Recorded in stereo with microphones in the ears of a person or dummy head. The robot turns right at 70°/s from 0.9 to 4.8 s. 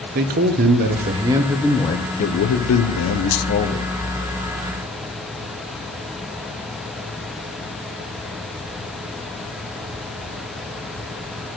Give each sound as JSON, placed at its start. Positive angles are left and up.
{"t": 0.1, "sound": "a man speaking", "azimuth_deg": -50, "distance_m": 0.7}